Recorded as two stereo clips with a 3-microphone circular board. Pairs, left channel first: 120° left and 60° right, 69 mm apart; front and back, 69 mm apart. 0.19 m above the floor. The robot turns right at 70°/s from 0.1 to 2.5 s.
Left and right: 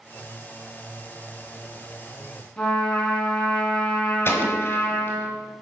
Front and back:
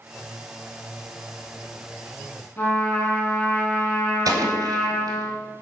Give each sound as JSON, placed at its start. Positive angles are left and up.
{"t": 2.6, "sound": "a trumpet", "azimuth_deg": 50, "distance_m": 1.7}
{"t": 4.2, "sound": "an explosion", "azimuth_deg": 170, "distance_m": 1.3}